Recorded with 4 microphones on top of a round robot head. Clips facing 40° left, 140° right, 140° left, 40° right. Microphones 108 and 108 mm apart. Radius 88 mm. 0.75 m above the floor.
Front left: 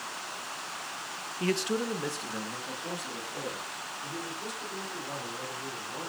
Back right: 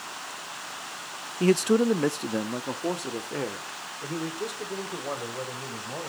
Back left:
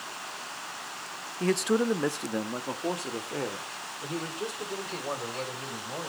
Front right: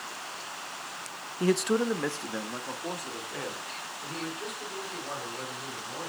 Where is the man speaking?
115° right, 0.6 m; by 6.1 s 170° right, 4 m.